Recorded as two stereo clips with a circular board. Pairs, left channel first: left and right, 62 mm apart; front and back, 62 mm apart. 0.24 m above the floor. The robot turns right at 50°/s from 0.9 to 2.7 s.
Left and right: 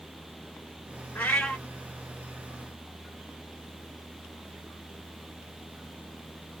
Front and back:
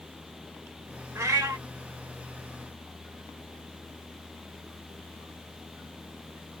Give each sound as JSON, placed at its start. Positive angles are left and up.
{"t": 1.1, "sound": "a cat meowing", "azimuth_deg": 150, "distance_m": 1.3}